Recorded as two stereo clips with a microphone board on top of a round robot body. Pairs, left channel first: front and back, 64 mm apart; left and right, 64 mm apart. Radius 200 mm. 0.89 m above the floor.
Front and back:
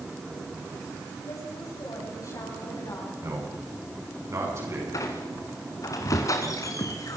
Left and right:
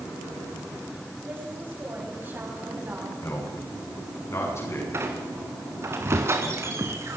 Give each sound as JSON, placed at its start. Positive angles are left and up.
{"t": 1.3, "sound": "a woman speaking", "azimuth_deg": -30, "distance_m": 8.0}
{"t": 3.2, "sound": "a man speaking", "azimuth_deg": 135, "distance_m": 10.0}
{"t": 4.9, "sound": "a squeak", "azimuth_deg": -40, "distance_m": 1.4}